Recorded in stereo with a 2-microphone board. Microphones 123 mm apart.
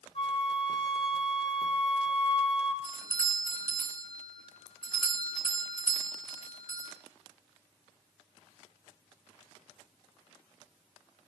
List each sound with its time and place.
0.1 s a flute: 50° left (ahead or behind), 2 m
2.8 s a doorbell: 40° left (ahead or behind), 2.5 m